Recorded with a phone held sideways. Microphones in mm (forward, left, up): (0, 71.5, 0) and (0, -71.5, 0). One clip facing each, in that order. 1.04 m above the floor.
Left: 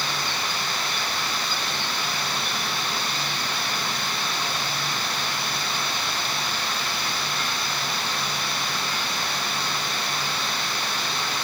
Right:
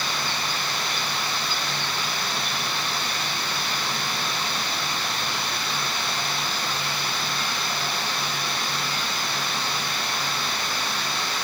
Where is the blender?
I don't hear a blender.